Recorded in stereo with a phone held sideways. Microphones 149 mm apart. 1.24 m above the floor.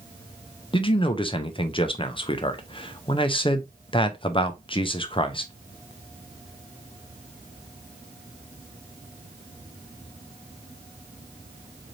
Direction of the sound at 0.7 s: 35° left (ahead or behind).